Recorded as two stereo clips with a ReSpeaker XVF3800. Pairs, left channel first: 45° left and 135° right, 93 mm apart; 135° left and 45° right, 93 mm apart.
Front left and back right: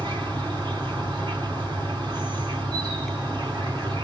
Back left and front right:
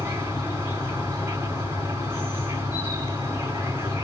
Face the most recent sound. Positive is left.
turn(degrees=-105)